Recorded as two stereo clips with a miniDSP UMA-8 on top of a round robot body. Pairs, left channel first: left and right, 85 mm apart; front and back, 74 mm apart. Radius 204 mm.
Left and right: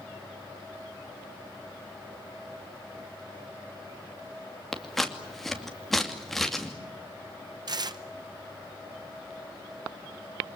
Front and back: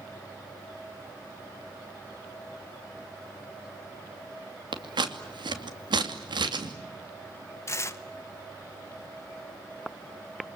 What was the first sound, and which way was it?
Scissors, straight behind.